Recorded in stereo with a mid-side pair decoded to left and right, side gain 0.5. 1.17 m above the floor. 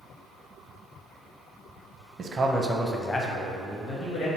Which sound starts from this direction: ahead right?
A man speaking, at 2.2 s.